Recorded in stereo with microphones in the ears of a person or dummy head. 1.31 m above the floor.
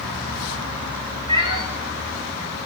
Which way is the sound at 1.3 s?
25° right (ahead or behind).